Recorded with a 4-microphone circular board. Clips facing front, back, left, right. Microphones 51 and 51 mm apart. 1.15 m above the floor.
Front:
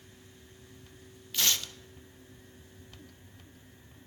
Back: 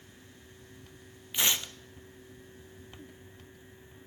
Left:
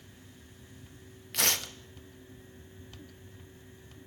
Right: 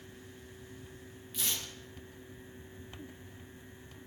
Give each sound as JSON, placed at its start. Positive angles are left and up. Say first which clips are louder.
{"t": 1.3, "sound": "tearing paper", "louder": "back 1 dB, left 8 dB", "azimuth_deg": 110, "distance_m": 0.6}